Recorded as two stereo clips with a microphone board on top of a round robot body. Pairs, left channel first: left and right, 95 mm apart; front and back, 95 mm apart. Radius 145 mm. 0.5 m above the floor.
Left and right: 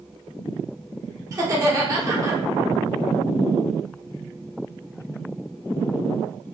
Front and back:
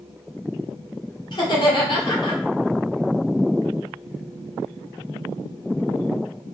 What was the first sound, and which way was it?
Laughter, 35° right.